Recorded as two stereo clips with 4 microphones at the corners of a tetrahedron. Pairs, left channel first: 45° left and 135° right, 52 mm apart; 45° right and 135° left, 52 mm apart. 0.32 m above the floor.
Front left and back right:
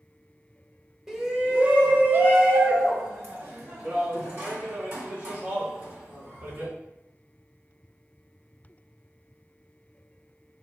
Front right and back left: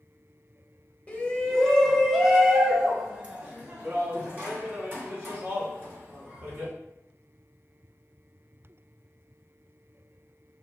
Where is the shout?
60° right, 0.9 m; by 6.7 s 170° right, 3.5 m.